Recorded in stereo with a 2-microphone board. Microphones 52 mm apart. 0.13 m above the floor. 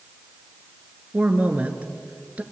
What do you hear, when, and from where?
1.1 s a woman speaking: 30° right (ahead or behind), 2 m